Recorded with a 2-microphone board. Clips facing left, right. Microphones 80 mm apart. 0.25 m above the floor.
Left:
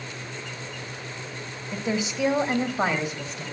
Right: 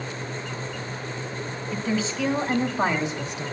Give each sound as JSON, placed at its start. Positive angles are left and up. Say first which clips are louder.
{"t": 1.7, "sound": "a woman speaking", "louder": "right 1 dB", "side_deg": 20, "distance_m": 1.8}